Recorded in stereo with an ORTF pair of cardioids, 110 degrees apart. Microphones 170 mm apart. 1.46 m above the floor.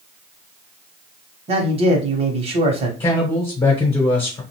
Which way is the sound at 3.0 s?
30° left.